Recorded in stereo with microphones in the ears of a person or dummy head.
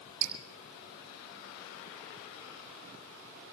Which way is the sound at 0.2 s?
65° right (ahead or behind).